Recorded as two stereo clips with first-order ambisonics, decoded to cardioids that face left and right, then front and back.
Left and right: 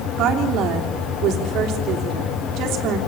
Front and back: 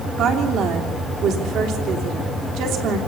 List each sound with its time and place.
0.2 s a woman speaking: 135° right, 3 m